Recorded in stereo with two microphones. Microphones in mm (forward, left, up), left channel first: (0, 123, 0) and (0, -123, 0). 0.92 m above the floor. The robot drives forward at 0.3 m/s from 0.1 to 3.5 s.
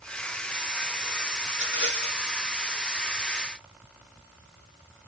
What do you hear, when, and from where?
1.5 s a rattle: 50° left (ahead or behind), 1.4 m; by 2.3 s 45° left (ahead or behind), 1.5 m